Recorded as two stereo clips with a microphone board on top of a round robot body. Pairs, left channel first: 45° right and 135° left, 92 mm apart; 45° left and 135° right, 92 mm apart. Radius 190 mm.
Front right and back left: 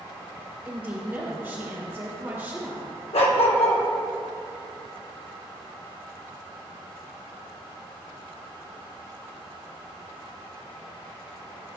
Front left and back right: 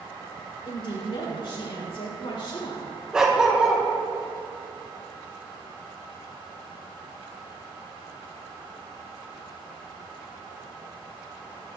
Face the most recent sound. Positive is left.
turn(degrees=-55)